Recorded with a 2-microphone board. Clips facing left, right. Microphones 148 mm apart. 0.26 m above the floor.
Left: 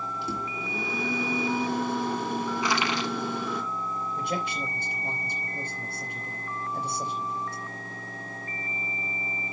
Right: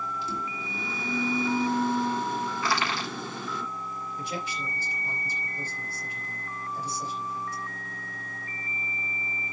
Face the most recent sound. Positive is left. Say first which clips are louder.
# left 3 dB
turn(degrees=60)  # may be behind; listen again after turning